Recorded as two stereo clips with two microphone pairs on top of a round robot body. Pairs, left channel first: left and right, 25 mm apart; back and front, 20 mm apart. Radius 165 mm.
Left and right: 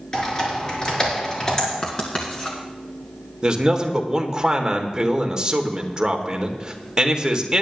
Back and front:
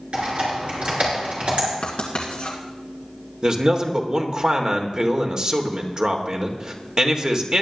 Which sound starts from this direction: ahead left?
Typing on a keyboard, at 0.1 s.